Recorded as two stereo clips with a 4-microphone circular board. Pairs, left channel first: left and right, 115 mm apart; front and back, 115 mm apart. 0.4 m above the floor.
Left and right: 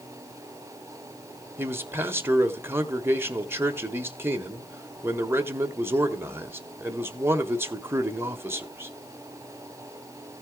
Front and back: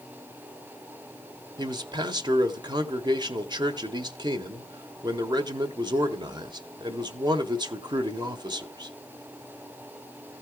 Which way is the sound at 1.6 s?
150° right.